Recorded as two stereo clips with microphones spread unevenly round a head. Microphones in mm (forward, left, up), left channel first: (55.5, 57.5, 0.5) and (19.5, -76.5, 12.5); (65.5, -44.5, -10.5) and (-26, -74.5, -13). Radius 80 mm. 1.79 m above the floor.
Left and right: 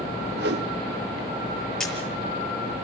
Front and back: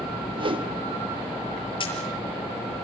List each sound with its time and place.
0.4 s a whoosh: 130° right, 1.4 m
1.8 s a camera shutter: 10° right, 6.5 m